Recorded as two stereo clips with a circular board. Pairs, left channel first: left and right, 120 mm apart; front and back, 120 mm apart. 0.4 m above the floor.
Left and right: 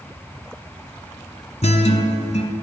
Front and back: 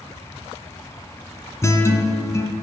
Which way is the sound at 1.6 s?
65° left.